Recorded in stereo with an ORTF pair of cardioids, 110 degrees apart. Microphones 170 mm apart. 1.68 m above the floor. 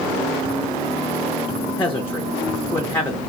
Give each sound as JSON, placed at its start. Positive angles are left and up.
{"t": 1.7, "sound": "a man speaking", "azimuth_deg": 10, "distance_m": 1.0}